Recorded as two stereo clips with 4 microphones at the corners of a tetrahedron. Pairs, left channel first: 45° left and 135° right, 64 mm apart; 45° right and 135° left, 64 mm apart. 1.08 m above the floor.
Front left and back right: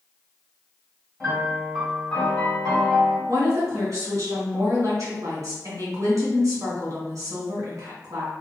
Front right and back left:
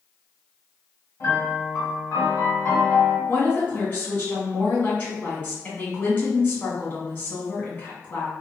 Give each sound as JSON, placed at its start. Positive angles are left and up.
{"t": 1.2, "sound": "a piano", "azimuth_deg": -35, "distance_m": 1.5}
{"t": 3.3, "sound": "a woman speaking", "azimuth_deg": -100, "distance_m": 1.3}